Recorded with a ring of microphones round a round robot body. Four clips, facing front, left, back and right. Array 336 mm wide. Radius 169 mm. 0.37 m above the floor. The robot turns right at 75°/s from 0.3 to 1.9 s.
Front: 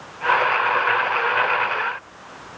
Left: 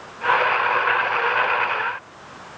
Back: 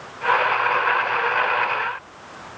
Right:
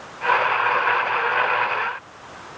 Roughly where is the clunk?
I don't hear a clunk.